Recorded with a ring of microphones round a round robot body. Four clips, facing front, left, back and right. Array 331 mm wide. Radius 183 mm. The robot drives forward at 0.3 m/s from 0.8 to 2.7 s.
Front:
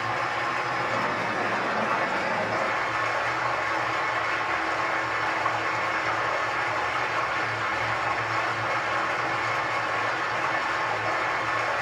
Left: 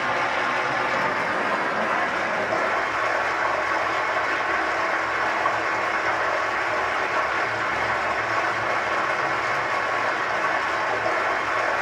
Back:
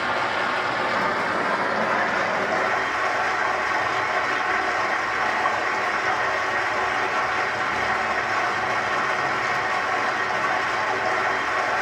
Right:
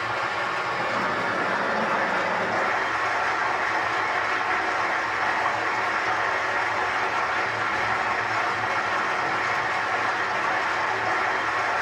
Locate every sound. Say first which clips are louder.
0.0 s running water: left 3 dB, back 4 dB; 140° left, 0.8 m; by 11.8 s 160° left, 1.3 m